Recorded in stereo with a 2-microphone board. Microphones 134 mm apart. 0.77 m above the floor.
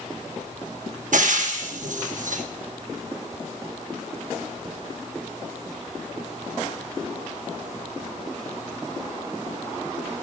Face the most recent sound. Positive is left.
turn(degrees=-70)  # may be behind; listen again after turning